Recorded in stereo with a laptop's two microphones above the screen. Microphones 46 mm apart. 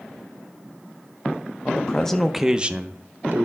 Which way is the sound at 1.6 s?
30° left (ahead or behind).